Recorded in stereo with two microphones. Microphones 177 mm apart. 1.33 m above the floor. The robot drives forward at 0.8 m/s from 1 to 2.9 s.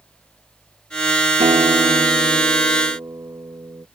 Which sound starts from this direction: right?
A guitar, at 1.4 s.